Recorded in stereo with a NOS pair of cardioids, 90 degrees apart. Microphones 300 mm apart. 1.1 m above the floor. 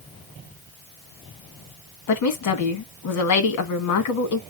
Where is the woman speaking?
70° left, 1.3 m.